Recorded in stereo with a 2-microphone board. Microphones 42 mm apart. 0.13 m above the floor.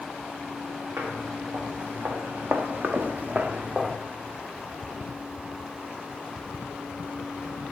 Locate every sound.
1.0 s footsteps: 75° right (ahead or behind), 2.5 m; by 4.0 s 5° right (ahead or behind), 0.6 m